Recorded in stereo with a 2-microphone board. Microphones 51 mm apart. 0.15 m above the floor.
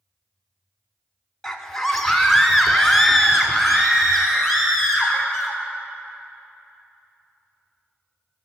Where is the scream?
5° left (ahead or behind), 1.0 m; by 5.6 s centre (ahead or behind), 3 m.